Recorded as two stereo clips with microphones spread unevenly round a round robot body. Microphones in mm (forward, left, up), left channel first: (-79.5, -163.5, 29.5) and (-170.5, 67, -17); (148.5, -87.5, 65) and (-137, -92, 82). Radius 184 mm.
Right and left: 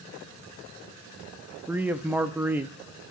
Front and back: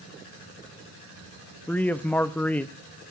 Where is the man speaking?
70° left, 0.6 m.